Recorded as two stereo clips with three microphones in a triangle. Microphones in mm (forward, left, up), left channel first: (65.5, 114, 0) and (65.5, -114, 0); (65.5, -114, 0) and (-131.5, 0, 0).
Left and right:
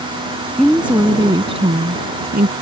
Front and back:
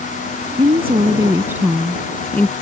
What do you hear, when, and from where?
0.6 s a woman speaking: 175° left; by 2.5 s 110° right